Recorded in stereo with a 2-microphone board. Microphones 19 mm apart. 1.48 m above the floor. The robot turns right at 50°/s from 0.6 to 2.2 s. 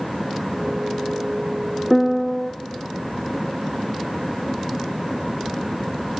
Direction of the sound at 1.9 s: 15° left (ahead or behind).